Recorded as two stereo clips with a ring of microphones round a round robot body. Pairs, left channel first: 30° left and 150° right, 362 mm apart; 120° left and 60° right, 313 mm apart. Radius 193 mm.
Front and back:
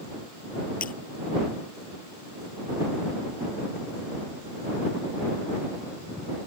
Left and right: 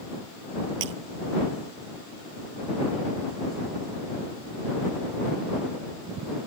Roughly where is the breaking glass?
Ahead right.